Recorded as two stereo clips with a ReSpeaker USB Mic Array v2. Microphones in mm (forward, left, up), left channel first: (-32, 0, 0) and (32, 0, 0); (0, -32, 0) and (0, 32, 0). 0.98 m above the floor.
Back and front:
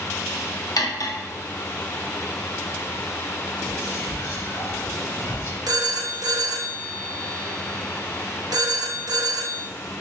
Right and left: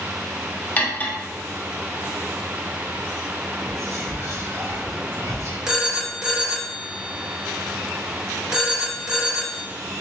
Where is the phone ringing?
10° left, 0.7 m.